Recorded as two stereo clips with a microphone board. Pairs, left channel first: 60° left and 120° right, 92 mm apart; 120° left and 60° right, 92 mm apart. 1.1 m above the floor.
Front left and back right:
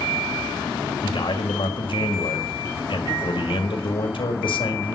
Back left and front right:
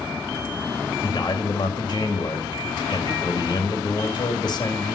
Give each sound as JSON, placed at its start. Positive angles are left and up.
{"t": 1.0, "sound": "a man speaking", "azimuth_deg": 85, "distance_m": 2.0}